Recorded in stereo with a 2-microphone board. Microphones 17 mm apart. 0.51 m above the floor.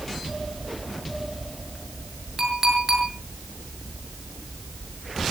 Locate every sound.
2.4 s a clink: 25° right (ahead or behind), 7 m